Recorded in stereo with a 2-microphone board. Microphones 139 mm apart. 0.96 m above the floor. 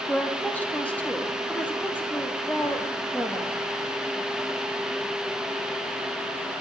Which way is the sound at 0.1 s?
10° left (ahead or behind).